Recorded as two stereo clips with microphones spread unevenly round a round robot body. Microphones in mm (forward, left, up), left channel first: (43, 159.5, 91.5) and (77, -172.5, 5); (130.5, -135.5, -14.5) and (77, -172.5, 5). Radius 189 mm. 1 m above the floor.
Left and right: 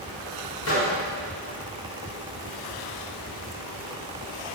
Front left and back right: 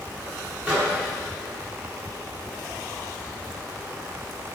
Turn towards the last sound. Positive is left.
turn(degrees=155)